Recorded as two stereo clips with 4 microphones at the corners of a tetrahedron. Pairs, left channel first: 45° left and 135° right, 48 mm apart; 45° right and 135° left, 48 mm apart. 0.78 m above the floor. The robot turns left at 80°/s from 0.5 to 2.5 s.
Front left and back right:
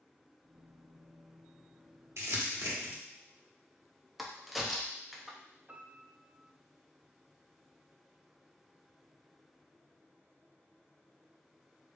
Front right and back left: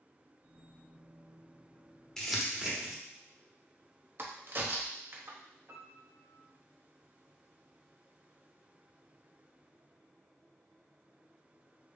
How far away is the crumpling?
About 1.1 m.